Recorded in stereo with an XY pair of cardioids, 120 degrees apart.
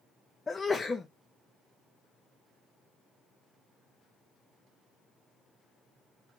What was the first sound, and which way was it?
A sneeze, 20° left.